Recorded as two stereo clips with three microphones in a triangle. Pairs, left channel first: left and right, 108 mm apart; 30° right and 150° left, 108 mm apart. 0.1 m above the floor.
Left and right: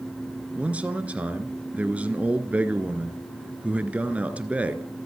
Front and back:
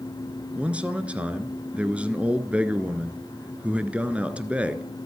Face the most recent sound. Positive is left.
turn(degrees=-150)